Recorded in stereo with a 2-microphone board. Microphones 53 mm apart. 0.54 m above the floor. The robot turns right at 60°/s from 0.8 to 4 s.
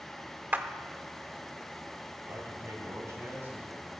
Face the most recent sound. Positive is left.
turn(degrees=-10)